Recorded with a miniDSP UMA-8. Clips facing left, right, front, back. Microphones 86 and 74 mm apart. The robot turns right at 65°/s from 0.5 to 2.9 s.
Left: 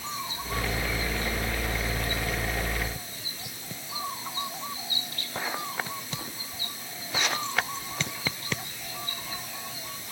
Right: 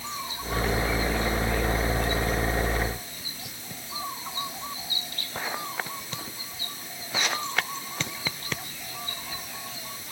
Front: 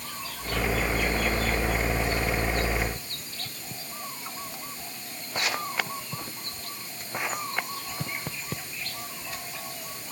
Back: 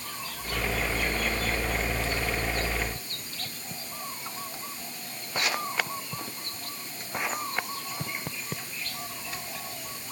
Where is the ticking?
I don't hear ticking.